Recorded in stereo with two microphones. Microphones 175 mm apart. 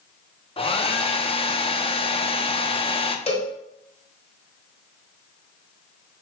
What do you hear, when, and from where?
0.6 s a hair dryer: 35° left (ahead or behind), 0.5 m
3.3 s a cowbell: 40° left (ahead or behind), 1.5 m